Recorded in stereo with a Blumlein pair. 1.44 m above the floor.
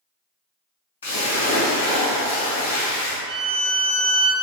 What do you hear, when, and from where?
1.0 s a splash: 65° left, 1.1 m
3.3 s a violin: 25° right, 0.8 m